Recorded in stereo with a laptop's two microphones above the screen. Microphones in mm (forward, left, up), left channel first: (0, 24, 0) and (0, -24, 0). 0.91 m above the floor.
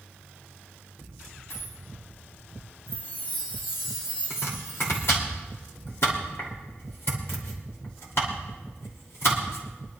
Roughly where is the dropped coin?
Left.